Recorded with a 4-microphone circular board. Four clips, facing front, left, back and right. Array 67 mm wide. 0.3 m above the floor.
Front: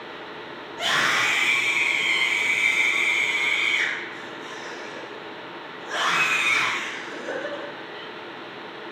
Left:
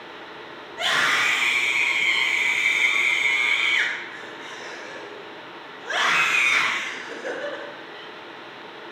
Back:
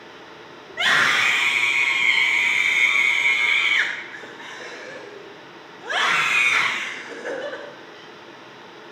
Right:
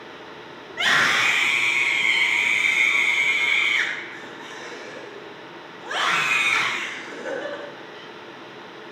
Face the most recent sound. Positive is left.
turn(degrees=135)